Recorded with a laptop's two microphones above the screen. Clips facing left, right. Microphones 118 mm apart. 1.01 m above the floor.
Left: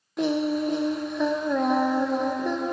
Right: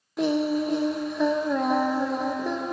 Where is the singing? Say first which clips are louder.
Right 1 dB; centre (ahead or behind), 0.6 m.